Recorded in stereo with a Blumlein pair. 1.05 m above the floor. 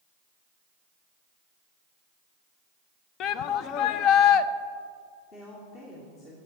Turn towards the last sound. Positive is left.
turn(degrees=35)